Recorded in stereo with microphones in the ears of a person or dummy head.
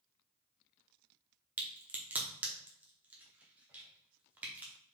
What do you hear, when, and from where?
1.6 s a crack: 5° right (ahead or behind), 0.7 m